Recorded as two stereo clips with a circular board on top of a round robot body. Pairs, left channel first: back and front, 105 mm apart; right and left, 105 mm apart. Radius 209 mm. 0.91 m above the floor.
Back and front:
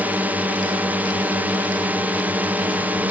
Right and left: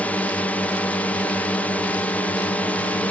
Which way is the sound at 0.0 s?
40° right.